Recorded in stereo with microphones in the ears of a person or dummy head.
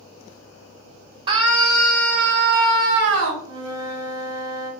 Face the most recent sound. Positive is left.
turn(degrees=-20)  # may be behind; listen again after turning